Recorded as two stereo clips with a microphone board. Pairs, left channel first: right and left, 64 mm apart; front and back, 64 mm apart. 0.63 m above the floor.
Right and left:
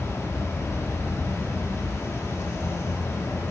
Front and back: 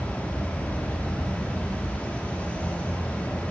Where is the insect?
65° right, 0.8 m.